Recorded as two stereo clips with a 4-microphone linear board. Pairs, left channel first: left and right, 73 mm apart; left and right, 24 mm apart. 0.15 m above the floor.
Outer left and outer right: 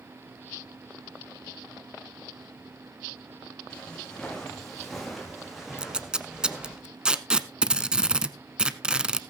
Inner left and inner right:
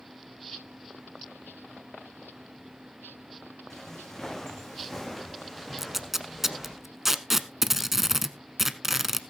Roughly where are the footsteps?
Centre.